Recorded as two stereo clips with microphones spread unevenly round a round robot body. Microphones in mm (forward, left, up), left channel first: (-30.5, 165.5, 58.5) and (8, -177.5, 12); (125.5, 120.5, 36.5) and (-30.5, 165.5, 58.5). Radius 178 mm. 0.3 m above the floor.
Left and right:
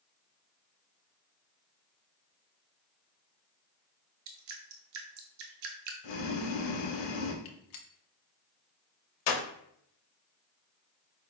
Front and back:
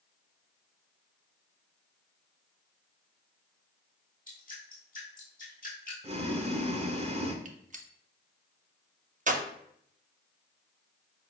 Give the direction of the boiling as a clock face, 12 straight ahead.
8 o'clock.